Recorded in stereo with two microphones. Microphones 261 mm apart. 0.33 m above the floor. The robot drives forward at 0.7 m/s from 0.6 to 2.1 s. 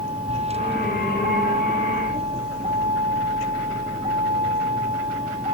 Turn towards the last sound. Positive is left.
turn(degrees=-25)  # may be behind; listen again after turning